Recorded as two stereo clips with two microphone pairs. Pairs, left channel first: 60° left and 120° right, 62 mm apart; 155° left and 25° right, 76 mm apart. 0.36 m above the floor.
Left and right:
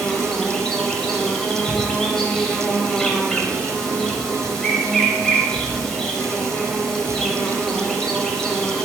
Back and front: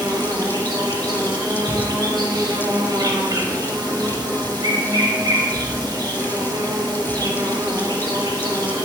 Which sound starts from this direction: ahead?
An insect, at 0.0 s.